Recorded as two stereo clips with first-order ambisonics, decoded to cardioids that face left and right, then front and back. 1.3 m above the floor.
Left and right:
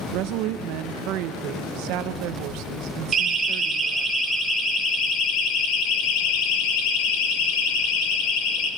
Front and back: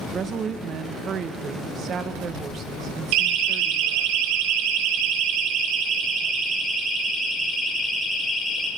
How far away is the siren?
About 4 m.